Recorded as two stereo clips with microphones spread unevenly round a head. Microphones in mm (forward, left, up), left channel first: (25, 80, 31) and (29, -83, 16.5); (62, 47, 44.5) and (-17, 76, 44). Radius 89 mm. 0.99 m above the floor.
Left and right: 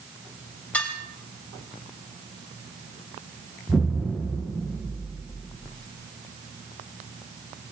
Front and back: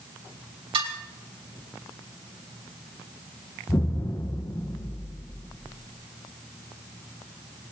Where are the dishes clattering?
175° left, 3.5 m.